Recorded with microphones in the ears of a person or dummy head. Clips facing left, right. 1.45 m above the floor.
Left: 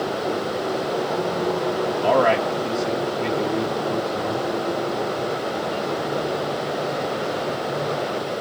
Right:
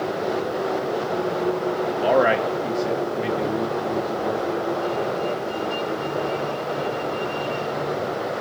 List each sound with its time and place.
2.0 s a man speaking: 25° right (ahead or behind), 0.9 m